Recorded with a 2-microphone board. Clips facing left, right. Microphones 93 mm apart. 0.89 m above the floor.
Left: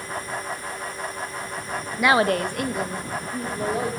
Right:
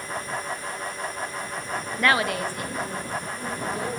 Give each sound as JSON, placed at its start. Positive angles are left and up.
{"t": 2.0, "sound": "a woman speaking", "side_deg": 0, "distance_m": 0.5}